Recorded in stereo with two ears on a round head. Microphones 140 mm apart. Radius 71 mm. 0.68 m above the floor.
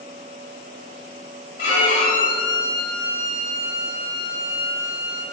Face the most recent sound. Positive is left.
turn(degrees=45)  # may be behind; listen again after turning